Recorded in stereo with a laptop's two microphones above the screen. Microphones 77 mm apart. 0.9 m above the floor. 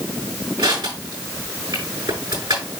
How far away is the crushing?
About 7 m.